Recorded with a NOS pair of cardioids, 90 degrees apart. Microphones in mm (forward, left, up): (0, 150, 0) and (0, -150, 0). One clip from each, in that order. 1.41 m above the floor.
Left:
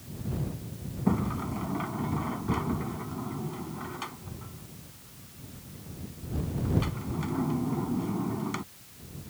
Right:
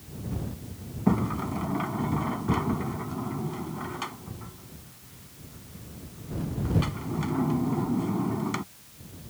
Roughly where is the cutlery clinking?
I don't hear cutlery clinking.